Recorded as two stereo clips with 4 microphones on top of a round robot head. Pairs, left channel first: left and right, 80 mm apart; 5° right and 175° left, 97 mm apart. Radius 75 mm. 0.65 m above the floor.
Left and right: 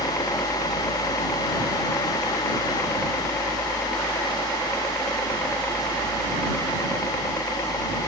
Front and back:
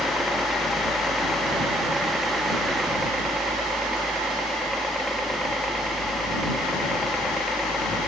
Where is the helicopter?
105° left; by 8.1 s 80° left.